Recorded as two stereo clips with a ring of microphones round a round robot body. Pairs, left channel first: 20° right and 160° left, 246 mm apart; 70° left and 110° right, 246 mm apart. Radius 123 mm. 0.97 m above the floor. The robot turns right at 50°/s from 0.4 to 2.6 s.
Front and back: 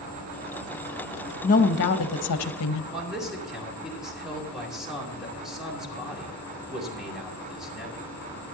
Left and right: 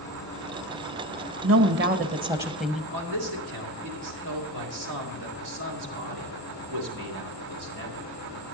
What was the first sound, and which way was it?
An insect, 145° left.